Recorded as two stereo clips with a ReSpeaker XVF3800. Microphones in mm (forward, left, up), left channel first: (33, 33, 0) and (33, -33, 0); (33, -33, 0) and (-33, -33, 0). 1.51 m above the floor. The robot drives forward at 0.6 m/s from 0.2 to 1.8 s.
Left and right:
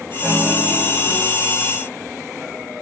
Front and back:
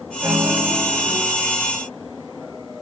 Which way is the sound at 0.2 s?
175° left.